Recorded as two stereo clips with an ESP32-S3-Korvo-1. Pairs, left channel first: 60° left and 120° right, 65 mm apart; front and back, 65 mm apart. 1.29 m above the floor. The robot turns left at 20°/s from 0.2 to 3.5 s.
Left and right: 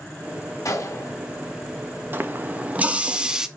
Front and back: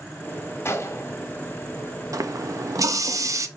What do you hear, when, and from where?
0.7 s a gunshot: 40° left, 1.6 m; by 1.1 s 30° left, 1.6 m
2.1 s a running tap: 170° right, 0.8 m; by 3.5 s 160° left, 0.8 m